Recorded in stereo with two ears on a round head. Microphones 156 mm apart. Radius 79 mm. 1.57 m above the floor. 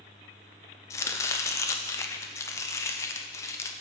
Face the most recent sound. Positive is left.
turn(degrees=15)  # may be behind; listen again after turning